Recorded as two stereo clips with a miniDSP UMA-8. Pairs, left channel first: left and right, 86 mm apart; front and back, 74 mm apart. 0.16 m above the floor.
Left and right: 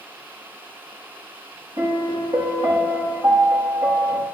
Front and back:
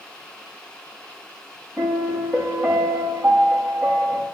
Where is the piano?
90° right, 7 m.